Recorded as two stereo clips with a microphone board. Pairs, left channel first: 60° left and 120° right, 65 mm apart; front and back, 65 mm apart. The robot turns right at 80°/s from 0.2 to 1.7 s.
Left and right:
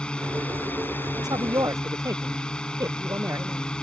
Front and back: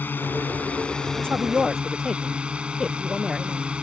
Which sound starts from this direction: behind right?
A woman speaking, at 1.2 s.